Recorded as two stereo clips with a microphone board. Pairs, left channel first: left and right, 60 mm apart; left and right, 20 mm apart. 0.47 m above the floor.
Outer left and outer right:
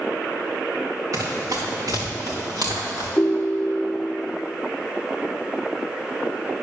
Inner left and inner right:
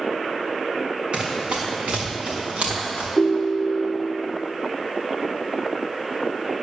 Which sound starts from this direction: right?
Running footsteps, at 1.1 s.